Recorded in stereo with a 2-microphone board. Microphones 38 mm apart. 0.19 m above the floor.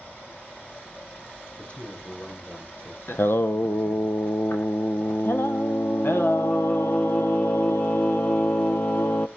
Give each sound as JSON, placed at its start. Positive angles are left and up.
{"t": 0.0, "sound": "running water", "side_deg": 60, "distance_m": 6.0}
{"t": 1.6, "sound": "a man speaking", "side_deg": 45, "distance_m": 6.5}
{"t": 3.1, "sound": "singing", "side_deg": 80, "distance_m": 0.9}